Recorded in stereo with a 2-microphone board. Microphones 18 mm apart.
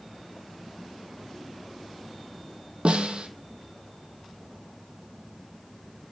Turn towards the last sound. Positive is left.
turn(degrees=-75)  # may be behind; listen again after turning